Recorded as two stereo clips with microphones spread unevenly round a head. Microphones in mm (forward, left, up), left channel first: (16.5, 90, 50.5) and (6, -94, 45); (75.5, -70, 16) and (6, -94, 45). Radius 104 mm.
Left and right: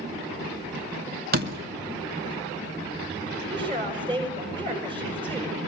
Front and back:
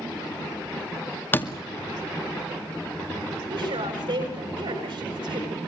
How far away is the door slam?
About 2 m.